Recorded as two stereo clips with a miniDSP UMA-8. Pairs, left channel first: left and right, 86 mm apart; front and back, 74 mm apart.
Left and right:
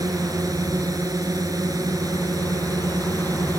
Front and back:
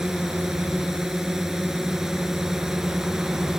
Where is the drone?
100° right.